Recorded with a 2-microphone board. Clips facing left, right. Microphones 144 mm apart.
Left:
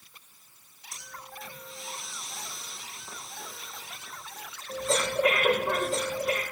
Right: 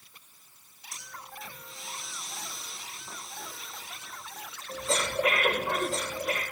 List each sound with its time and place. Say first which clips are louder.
0.9 s breathing: even; centre (ahead or behind), 8 m